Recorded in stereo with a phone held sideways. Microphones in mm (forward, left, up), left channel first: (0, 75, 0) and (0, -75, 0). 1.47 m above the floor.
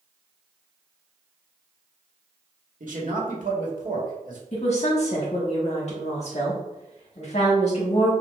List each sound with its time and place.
2.8 s a man speaking: 65° right (ahead or behind), 1.2 m
4.5 s a woman speaking: 50° left (ahead or behind), 1.4 m